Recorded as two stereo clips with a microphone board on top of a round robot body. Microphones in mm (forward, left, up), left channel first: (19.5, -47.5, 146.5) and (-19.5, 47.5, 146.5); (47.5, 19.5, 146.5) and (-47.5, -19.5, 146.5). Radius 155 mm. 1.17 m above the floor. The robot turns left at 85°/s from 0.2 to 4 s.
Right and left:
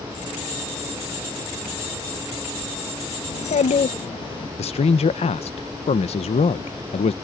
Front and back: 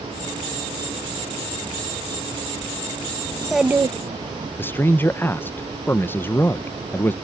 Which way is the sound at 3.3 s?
45° right.